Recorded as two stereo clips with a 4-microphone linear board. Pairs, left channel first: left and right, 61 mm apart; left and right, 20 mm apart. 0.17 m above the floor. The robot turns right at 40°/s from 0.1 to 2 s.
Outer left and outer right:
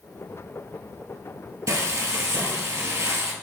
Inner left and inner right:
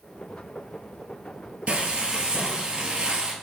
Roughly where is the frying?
Right.